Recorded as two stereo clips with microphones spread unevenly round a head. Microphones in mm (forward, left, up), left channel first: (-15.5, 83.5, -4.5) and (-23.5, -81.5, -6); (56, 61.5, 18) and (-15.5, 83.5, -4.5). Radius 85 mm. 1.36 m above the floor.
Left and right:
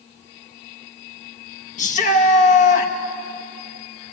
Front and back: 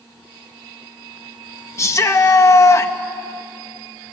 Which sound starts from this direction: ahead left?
A shout, at 1.8 s.